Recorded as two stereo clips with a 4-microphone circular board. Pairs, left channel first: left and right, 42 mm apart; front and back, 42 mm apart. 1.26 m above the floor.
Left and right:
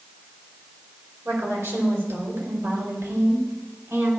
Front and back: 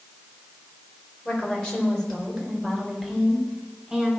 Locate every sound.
1.2 s a woman speaking: 75° right, 5 m; by 4.1 s 105° right, 5 m